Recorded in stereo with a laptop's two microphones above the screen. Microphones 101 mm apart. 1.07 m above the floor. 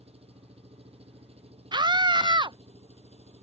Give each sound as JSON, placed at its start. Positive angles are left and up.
{"t": 0.0, "sound": "an engine running", "side_deg": -90}
{"t": 1.7, "sound": "a scream", "side_deg": -50}